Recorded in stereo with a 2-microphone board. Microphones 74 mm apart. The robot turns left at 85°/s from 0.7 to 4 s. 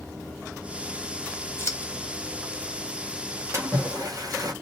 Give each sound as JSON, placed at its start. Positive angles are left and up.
{"t": 1.6, "sound": "scissors", "side_deg": 35, "distance_m": 2.0}
{"t": 3.5, "sound": "a splash", "azimuth_deg": -50, "distance_m": 1.8}